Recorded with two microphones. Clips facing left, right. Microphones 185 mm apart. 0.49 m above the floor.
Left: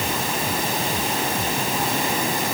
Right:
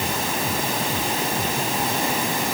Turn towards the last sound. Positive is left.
No sound to turn to.